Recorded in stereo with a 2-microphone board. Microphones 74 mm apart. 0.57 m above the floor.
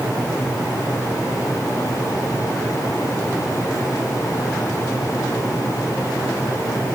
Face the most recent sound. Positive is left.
No sound to turn to.